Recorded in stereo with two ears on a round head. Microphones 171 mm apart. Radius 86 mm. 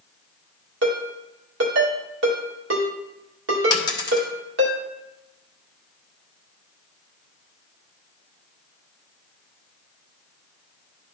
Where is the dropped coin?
20° left (ahead or behind), 1.2 m.